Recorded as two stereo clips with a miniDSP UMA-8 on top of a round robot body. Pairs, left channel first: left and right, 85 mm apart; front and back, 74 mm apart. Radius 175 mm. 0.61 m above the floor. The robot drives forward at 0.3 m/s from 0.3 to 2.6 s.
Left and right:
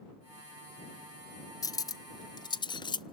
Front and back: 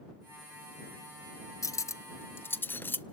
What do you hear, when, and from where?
1.6 s cutlery clinking: 45° left, 0.9 m; by 3.0 s 60° left, 0.7 m